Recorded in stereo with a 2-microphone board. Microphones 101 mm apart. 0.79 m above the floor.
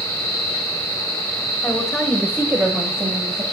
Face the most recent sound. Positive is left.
turn(degrees=-40)  # may be behind; listen again after turning